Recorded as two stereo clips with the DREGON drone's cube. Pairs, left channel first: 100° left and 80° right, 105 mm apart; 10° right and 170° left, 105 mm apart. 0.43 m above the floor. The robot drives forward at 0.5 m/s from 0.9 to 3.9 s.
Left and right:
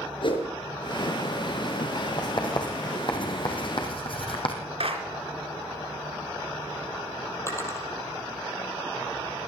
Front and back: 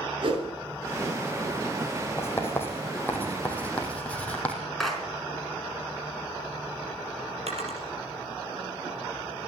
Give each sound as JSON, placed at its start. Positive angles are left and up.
{"t": 0.2, "sound": "a whoosh", "azimuth_deg": 135, "distance_m": 5.0}
{"t": 2.2, "sound": "writing", "azimuth_deg": 55, "distance_m": 3.5}
{"t": 4.8, "sound": "a clap", "azimuth_deg": -100, "distance_m": 3.5}
{"t": 7.5, "sound": "a drawer", "azimuth_deg": 165, "distance_m": 3.5}